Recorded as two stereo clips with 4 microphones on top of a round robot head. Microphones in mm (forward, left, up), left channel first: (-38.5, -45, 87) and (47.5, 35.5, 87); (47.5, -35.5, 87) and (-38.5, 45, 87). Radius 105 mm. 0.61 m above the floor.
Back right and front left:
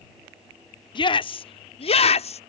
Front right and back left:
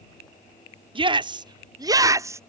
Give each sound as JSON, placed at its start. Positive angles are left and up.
{"t": 0.9, "sound": "a shout", "azimuth_deg": 180}